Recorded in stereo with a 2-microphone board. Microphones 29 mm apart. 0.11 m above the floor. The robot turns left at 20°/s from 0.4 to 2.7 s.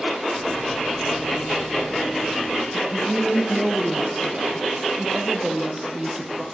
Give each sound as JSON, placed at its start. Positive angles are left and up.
{"t": 2.7, "sound": "a woman speaking", "side_deg": -25, "distance_m": 4.5}